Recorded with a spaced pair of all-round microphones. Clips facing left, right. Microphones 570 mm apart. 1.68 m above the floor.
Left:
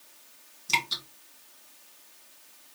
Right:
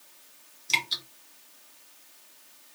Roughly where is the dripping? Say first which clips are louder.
Left 3 dB; left.